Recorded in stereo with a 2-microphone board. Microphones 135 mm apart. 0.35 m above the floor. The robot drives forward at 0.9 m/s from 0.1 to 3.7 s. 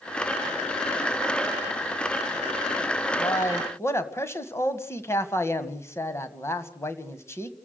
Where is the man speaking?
25° left (ahead or behind), 1.5 m; by 7.5 s 20° left (ahead or behind), 1.9 m.